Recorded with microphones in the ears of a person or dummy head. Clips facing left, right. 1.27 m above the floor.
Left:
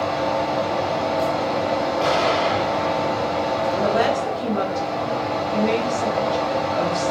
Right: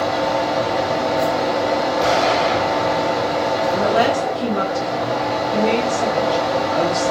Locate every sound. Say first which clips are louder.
0.0 s a fan: right 3 dB; 15° right (ahead or behind), 1.1 m
2.0 s an explosion: right 3 dB; 10° left (ahead or behind), 2 m
3.7 s a woman speaking: right 2 dB; 35° right (ahead or behind), 1.2 m